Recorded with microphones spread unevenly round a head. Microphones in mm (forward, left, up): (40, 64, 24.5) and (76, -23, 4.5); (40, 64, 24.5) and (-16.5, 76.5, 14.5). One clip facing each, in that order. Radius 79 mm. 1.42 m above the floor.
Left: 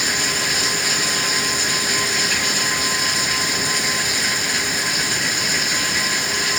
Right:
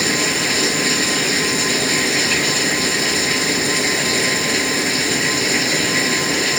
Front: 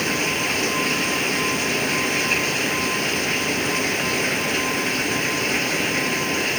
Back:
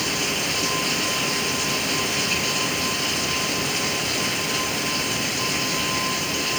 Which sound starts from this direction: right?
Running water, at 0.0 s.